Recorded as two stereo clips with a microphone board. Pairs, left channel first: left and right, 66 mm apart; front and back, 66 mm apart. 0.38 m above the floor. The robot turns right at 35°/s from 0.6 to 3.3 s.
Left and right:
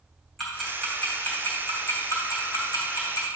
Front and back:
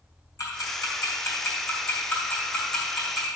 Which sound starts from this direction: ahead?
Ticking, at 0.4 s.